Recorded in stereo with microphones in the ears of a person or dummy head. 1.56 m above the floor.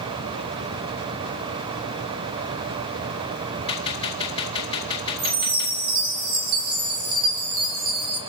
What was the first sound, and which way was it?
A gunshot, 25° left (ahead or behind).